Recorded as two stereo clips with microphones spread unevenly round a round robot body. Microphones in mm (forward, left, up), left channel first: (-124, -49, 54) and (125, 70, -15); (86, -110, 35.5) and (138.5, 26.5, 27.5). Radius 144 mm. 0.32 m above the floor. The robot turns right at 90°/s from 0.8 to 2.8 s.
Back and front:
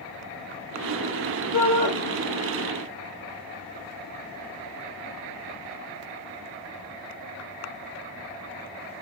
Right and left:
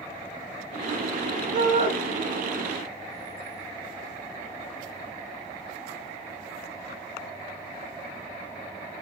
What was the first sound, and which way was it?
A shout, 120° left.